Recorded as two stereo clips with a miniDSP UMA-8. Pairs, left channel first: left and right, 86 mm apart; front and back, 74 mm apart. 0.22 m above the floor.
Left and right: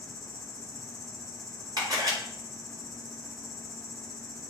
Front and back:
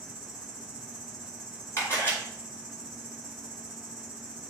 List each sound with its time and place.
0.0 s an insect: 40° right, 3 m
1.8 s a camera shutter: 55° right, 4 m